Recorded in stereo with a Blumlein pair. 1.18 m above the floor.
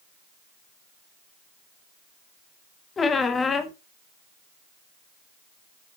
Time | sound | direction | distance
3.0 | a squeak | 15° left | 0.7 m